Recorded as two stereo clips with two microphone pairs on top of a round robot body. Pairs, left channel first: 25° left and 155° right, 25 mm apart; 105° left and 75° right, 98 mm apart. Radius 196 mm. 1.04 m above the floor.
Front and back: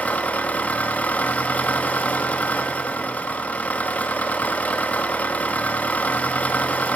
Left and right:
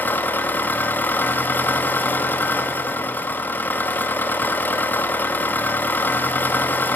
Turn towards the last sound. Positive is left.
turn(degrees=35)